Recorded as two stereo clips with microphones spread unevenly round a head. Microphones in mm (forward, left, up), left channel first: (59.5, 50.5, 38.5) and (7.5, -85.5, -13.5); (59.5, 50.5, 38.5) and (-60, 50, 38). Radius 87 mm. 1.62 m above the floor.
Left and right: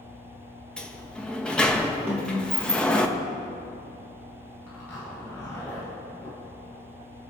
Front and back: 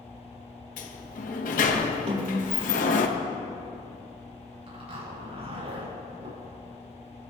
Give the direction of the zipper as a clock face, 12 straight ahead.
7 o'clock.